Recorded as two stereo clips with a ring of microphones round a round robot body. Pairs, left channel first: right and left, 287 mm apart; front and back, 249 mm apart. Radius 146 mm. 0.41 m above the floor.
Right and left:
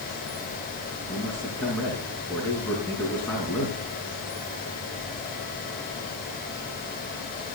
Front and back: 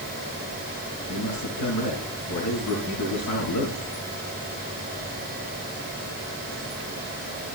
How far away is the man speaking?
About 4.5 m.